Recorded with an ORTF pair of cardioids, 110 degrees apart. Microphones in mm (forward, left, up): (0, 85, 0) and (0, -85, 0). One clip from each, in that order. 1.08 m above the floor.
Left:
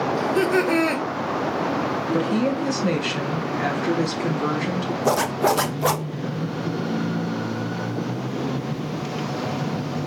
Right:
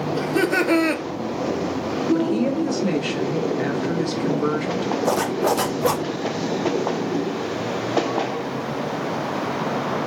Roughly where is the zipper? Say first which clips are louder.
Left 2 dB; ahead.